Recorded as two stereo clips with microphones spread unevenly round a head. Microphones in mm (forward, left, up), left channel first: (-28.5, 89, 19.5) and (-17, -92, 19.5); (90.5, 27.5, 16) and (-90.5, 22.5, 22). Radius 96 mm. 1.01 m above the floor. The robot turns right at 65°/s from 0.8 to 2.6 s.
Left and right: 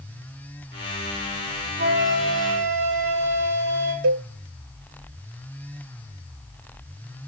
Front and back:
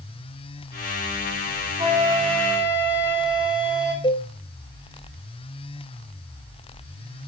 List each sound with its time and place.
1.8 s a flute: 120° right, 3.5 m; by 3.9 s 65° right, 3.5 m
4.0 s a cowbell: 65° right, 0.5 m